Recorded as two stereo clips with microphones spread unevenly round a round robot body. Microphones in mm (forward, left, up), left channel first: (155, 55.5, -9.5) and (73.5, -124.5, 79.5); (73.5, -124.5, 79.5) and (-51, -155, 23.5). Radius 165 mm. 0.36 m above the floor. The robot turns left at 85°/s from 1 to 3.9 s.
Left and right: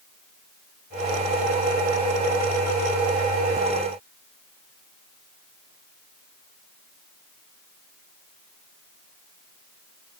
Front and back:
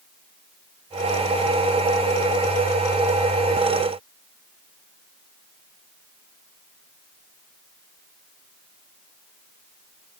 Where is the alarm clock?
No alarm clock in this recording.